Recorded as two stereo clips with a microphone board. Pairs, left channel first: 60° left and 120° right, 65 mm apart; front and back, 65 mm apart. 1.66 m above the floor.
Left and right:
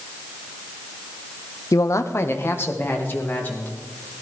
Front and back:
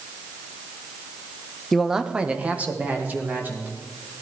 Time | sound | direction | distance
1.7 | a man speaking | 85° left | 0.5 m